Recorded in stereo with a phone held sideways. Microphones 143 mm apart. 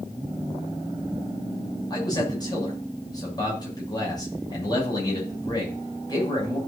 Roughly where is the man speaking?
Left.